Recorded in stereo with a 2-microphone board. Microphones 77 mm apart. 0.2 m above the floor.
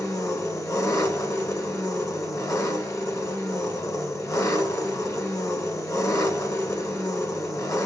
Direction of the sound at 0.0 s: 45° left (ahead or behind).